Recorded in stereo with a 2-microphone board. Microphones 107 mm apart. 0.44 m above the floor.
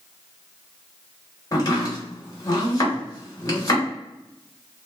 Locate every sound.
1.5 s chopping: 35° left (ahead or behind), 1.0 m